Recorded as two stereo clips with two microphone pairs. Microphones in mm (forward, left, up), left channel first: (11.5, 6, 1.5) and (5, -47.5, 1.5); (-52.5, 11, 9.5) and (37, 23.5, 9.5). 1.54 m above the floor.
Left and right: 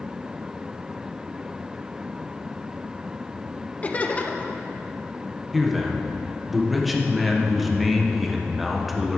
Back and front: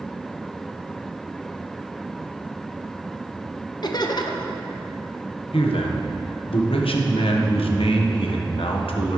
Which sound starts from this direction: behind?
A man speaking, at 5.5 s.